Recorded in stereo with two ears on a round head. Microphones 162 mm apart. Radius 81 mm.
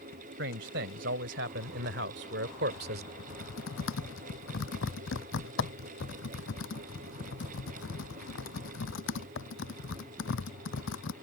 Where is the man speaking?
65° right (ahead or behind); by 3.1 s 55° right (ahead or behind).